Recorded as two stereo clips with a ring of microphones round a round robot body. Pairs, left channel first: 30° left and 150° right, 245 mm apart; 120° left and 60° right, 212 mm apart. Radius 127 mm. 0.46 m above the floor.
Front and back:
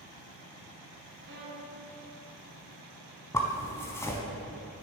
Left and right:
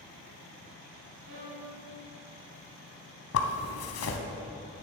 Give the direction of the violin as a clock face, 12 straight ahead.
3 o'clock.